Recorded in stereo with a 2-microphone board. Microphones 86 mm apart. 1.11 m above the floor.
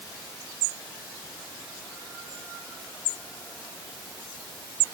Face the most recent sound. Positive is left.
No sound to turn to.